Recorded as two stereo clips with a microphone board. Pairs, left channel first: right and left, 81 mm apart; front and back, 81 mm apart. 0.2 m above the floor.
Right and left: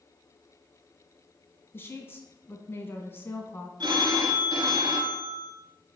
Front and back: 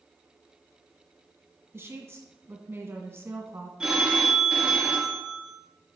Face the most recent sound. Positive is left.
turn(degrees=100)